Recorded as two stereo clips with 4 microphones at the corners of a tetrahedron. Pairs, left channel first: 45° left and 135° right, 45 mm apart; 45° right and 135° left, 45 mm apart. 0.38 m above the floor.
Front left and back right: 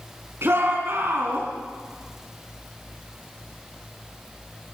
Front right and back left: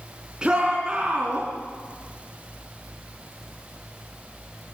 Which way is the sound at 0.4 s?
155° right.